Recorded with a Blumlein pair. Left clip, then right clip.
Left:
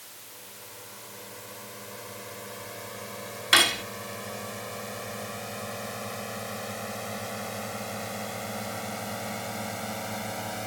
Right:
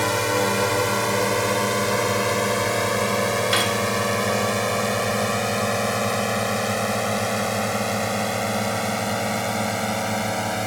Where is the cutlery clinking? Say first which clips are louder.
Left 5 dB; 15° left.